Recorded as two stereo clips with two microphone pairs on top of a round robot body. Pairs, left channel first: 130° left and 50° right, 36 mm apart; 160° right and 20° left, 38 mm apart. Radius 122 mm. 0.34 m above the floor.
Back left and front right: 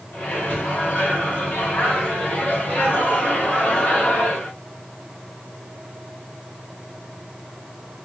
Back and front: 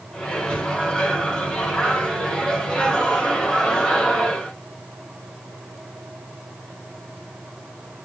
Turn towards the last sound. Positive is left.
turn(degrees=140)